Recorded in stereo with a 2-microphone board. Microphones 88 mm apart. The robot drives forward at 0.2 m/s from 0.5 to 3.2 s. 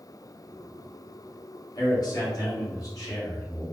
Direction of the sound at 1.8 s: 50° left (ahead or behind).